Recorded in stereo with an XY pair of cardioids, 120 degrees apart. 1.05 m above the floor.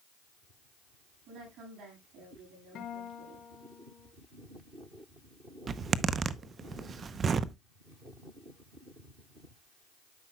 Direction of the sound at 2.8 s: 65° left.